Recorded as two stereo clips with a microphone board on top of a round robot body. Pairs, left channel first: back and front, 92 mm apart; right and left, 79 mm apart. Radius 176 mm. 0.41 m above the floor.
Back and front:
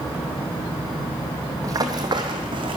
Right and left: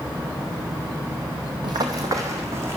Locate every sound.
1.6 s running footsteps: 55° left, 0.9 m; by 2.8 s 30° left, 1.4 m